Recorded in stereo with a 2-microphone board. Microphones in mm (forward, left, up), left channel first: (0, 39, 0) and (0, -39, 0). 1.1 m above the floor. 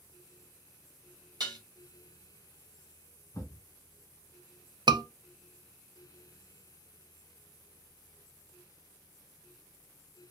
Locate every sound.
1.4 s dishes clattering: 65° right (ahead or behind), 1.5 m
3.3 s a thud: 35° left (ahead or behind), 1.3 m
4.9 s a scream: 70° right (ahead or behind), 0.5 m